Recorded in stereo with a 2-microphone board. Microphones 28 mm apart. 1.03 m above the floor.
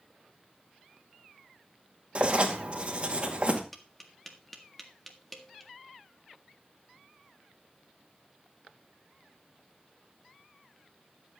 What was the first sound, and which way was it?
Writing, 40° right (ahead or behind).